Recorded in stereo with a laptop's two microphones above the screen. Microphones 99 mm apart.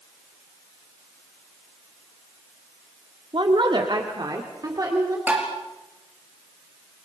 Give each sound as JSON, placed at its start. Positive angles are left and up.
{"t": 3.3, "sound": "a woman speaking", "side_deg": -60, "distance_m": 2.0}
{"t": 5.3, "sound": "tapping", "side_deg": -15, "distance_m": 4.0}